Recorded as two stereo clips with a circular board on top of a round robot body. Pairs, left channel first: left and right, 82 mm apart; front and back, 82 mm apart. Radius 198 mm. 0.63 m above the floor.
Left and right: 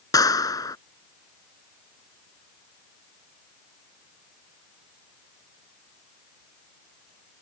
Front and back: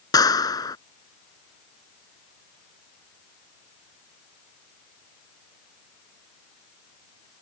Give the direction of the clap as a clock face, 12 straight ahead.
11 o'clock.